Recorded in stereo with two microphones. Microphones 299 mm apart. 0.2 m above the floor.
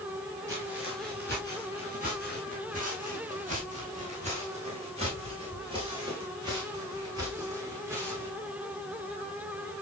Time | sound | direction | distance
0.5 | footsteps | 35° right (ahead or behind) | 9.5 m